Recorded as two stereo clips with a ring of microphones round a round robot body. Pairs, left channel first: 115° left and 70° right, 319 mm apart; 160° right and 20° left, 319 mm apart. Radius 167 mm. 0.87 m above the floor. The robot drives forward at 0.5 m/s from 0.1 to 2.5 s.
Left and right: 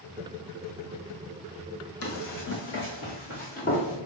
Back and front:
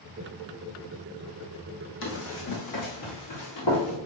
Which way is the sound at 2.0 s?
155° left.